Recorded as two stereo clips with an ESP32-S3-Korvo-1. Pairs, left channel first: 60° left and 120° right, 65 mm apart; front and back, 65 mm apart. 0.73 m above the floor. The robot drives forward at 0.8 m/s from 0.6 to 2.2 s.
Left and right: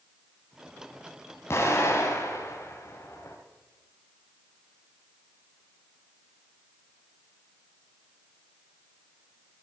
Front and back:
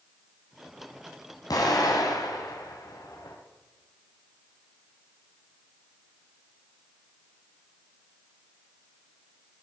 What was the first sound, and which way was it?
An explosion, 10° left.